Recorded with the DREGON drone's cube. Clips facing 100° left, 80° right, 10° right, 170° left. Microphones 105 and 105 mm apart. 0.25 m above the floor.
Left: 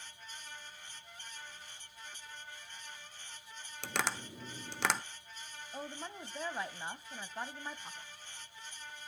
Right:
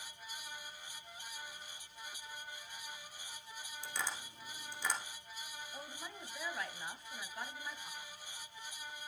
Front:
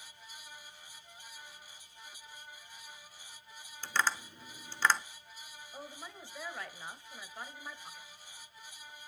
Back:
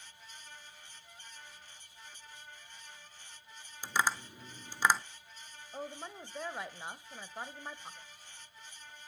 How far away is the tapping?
About 1.0 m.